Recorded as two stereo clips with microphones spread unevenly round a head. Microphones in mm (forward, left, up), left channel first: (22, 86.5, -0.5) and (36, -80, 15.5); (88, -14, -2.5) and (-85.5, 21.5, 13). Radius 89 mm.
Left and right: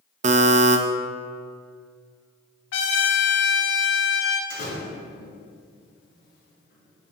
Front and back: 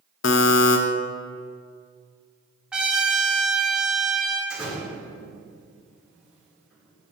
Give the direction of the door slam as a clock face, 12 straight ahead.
9 o'clock.